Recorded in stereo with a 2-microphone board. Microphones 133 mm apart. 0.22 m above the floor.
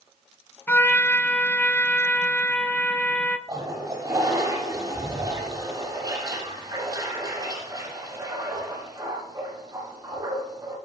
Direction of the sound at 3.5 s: 30° right (ahead or behind).